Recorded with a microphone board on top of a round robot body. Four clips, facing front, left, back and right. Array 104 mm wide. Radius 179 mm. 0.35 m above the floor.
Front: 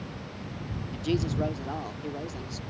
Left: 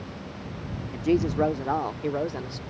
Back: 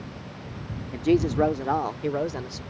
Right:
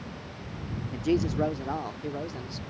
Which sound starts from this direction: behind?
A woman speaking, at 0.9 s.